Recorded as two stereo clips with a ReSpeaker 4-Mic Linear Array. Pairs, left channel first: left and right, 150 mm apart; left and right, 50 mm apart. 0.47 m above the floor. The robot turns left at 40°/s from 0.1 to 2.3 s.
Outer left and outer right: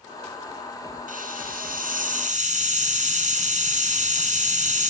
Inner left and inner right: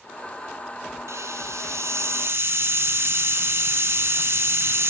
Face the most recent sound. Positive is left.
turn(degrees=-120)